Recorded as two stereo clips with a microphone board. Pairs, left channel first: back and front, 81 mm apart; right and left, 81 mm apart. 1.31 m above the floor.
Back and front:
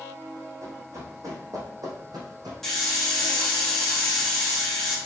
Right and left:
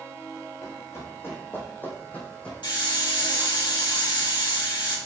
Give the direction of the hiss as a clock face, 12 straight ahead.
3 o'clock.